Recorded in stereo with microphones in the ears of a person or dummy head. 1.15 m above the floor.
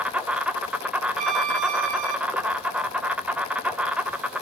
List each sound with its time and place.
0.0 s an insect: 5° right (ahead or behind), 0.9 m
1.2 s a violin: 45° right (ahead or behind), 1.5 m